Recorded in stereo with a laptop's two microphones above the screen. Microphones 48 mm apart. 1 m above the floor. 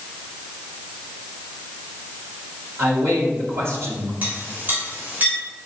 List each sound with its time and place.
2.8 s a man speaking: 70° right (ahead or behind), 2 m
4.2 s a clink: 40° right (ahead or behind), 3 m